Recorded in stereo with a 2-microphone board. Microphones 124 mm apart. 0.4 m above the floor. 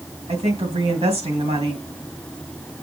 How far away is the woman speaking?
About 2.5 m.